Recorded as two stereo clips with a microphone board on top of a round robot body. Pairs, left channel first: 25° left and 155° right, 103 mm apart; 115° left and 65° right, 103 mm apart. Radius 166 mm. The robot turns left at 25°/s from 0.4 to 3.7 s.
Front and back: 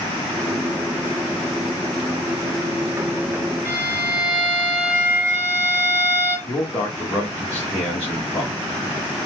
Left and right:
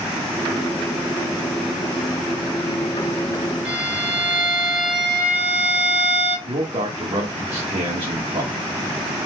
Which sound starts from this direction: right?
A violin, at 3.6 s.